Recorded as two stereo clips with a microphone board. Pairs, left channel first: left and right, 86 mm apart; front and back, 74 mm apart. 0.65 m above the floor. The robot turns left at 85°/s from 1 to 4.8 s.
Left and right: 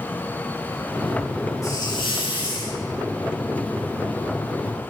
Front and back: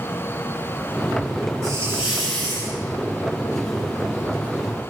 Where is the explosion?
I don't hear an explosion.